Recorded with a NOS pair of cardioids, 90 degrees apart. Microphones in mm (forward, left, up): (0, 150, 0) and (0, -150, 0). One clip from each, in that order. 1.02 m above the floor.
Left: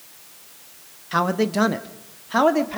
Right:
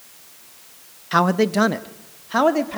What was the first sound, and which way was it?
A man speaking, 20° right.